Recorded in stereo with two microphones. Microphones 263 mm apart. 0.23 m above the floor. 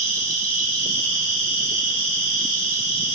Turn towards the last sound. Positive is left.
turn(degrees=20)  # may be behind; listen again after turning